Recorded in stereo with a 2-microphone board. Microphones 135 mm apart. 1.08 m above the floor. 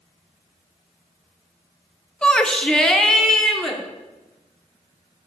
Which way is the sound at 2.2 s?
5° left (ahead or behind).